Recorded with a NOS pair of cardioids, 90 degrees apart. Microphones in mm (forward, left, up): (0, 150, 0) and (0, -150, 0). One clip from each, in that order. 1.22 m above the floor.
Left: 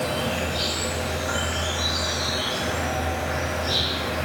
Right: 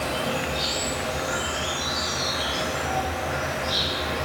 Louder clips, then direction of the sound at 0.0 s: Left 1 dB; 50° left.